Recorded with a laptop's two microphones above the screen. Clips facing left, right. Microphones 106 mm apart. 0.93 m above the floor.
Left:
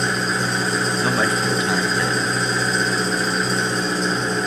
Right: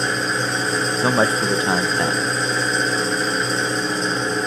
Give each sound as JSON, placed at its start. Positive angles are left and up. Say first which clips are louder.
{"t": 0.0, "sound": "an engine running", "louder": "even", "side_deg": 0, "distance_m": 4.5}
{"t": 1.0, "sound": "a man speaking", "louder": "right 5 dB", "side_deg": -30, "distance_m": 0.5}